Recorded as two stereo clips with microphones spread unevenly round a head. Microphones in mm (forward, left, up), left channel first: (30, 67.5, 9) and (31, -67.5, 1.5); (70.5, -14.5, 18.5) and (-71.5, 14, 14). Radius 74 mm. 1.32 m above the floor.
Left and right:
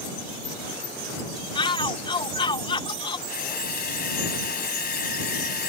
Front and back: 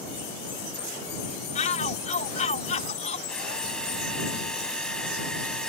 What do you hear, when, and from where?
1.6 s a shout: 35° left
3.3 s a drill: 75° left